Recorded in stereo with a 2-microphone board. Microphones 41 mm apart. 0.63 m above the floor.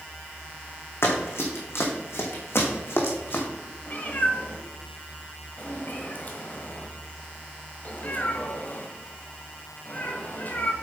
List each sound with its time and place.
1.0 s running footsteps: 70° left (ahead or behind), 2.5 m; by 3.4 s 55° left (ahead or behind), 2.5 m
3.9 s a cat meowing: 45° left (ahead or behind), 1.6 m